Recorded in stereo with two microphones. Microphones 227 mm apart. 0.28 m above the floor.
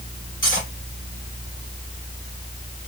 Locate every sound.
0.4 s cutlery clinking: 55° left (ahead or behind), 3.5 m